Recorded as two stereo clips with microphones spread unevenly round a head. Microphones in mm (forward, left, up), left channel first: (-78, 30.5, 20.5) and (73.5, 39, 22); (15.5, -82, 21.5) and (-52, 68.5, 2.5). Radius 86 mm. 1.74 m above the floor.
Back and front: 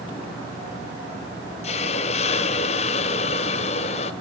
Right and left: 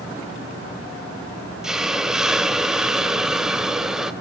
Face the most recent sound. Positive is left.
turn(degrees=-150)